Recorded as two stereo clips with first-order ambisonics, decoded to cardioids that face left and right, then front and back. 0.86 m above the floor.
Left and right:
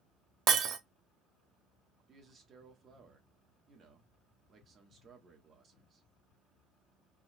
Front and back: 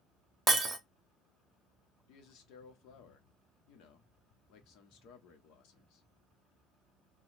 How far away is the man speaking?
About 1.1 m.